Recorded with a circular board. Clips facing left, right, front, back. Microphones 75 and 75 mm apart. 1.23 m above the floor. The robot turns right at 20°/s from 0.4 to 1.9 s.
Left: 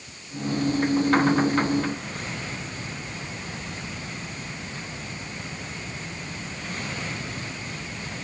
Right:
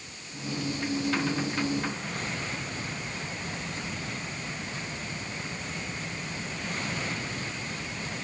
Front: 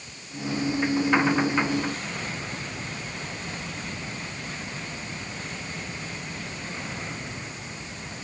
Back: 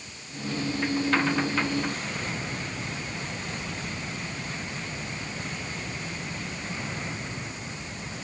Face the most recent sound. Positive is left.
No sound to turn to.